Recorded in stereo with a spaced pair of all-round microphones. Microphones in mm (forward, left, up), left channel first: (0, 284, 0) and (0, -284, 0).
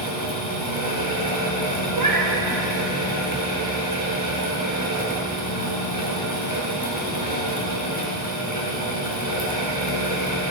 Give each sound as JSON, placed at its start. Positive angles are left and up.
{"t": 0.0, "sound": "a fan", "side_deg": -35, "distance_m": 2.0}
{"t": 1.9, "sound": "a cat meowing", "side_deg": -35, "distance_m": 1.1}